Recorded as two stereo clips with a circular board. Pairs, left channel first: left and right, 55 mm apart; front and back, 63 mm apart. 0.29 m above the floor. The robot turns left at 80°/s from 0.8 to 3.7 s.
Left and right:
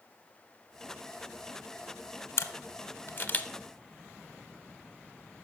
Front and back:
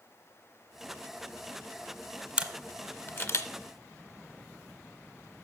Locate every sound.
2.4 s a camera shutter: 110° left, 0.7 m; by 3.5 s 20° left, 0.7 m